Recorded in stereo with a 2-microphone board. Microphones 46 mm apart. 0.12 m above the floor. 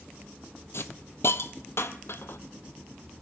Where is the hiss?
65° left (ahead or behind), 0.5 m.